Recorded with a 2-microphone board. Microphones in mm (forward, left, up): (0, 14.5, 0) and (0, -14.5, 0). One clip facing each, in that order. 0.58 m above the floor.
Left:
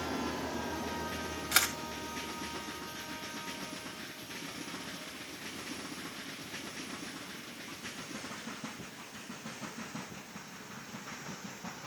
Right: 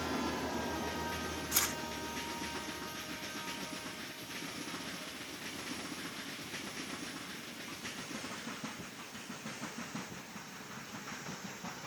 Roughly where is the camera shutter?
Left.